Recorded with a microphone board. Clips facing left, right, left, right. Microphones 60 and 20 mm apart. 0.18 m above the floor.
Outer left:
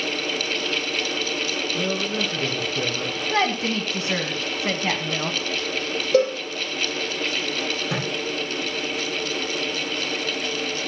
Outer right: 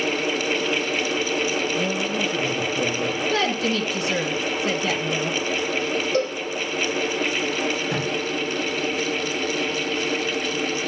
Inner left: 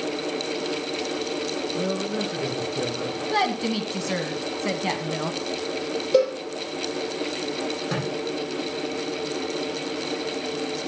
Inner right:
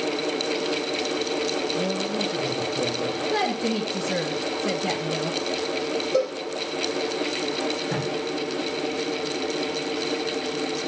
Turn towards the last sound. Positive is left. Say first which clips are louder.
# outer right 2 dB, inner right 1 dB
turn(degrees=80)